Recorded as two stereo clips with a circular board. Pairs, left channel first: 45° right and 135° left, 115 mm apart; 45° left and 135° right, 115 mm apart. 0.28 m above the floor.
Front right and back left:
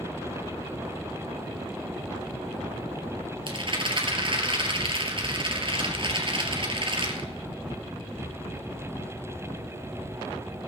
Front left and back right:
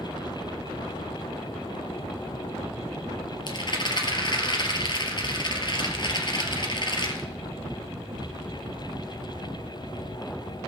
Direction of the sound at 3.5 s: 95° left.